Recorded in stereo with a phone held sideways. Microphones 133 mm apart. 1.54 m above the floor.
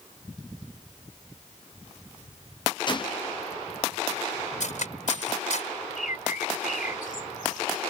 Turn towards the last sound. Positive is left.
turn(degrees=85)